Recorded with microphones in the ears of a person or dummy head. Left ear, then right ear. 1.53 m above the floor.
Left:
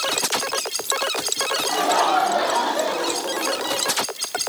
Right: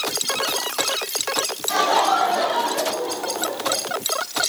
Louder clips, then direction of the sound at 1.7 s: Right 2 dB; 30° right (ahead or behind).